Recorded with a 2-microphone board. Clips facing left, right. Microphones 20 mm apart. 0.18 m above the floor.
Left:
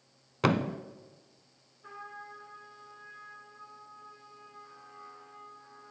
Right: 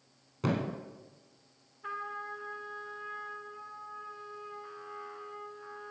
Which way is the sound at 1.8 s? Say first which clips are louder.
Right 7 dB; 40° right (ahead or behind).